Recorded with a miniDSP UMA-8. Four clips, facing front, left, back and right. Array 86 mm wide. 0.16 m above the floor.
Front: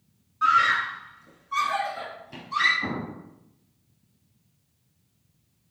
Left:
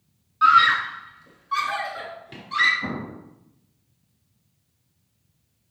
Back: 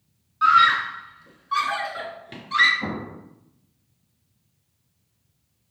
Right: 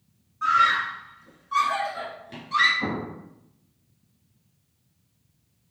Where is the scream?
120° left, 1.7 m; by 2.7 s 175° left, 2.5 m.